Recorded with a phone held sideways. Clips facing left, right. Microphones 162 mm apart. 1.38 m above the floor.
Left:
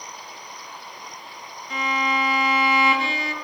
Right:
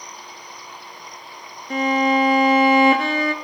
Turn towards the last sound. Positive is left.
turn(degrees=-50)  # may be behind; listen again after turning